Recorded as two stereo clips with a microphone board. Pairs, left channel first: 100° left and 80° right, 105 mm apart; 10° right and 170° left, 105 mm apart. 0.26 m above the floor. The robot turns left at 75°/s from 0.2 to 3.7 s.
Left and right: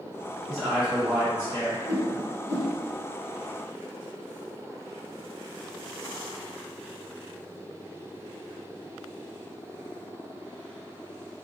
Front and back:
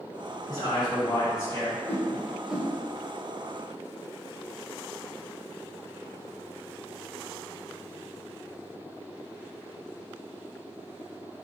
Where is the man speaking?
10° left, 2.0 m; by 1.8 s 85° right, 2.0 m.